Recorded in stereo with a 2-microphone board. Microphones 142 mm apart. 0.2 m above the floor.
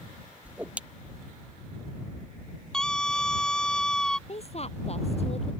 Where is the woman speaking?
45° left (ahead or behind).